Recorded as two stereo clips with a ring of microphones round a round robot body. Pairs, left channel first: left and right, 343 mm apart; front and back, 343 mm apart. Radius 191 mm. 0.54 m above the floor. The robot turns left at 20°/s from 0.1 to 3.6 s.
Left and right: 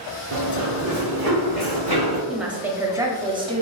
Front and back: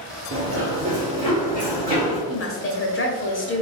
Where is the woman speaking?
Straight ahead, 0.8 m; by 3.6 s 25° right, 0.8 m.